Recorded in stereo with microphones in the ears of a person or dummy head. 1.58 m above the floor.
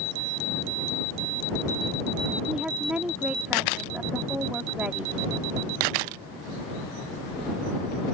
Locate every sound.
2.5 s a woman speaking: 5° right (ahead or behind)